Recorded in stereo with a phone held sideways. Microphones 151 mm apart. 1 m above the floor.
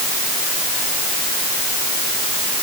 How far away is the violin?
I don't hear a violin.